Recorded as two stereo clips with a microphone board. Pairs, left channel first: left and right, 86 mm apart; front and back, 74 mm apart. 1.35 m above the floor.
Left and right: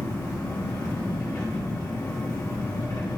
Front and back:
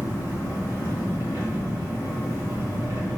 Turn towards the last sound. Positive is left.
turn(degrees=130)